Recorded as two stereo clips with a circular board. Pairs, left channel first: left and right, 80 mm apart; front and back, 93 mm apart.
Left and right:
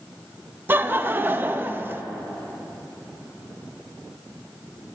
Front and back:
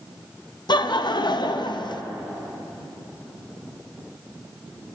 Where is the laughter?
25° right, 0.7 m.